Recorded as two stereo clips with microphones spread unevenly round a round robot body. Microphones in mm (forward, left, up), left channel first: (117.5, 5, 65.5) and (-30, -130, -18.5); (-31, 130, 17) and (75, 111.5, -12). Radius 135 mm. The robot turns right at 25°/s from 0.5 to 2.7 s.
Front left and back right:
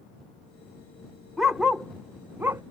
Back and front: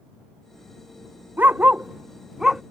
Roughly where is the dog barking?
Left.